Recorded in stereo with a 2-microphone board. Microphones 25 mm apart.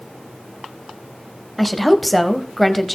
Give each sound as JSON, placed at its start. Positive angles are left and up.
{"t": 1.6, "sound": "a woman speaking", "side_deg": 5, "distance_m": 1.1}